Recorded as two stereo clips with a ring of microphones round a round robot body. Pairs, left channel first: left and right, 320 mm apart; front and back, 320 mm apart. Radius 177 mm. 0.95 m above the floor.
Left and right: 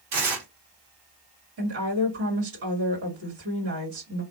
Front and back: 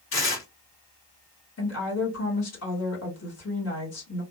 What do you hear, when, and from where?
0.1 s tearing paper: 50° right, 1.5 m
1.6 s a woman speaking: 40° right, 2 m